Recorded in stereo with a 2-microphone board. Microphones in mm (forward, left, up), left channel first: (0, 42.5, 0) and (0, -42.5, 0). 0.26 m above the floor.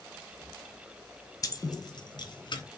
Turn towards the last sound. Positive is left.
turn(degrees=65)  # may be behind; listen again after turning